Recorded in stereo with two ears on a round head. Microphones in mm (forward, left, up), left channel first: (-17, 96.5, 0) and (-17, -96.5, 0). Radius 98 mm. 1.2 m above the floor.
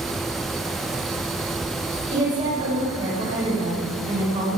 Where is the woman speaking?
25° right (ahead or behind), 4.5 m.